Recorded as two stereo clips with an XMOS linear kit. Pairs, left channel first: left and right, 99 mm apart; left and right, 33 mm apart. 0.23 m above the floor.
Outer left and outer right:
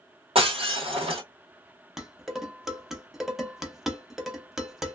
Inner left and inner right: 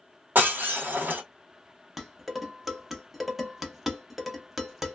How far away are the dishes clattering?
About 0.6 m.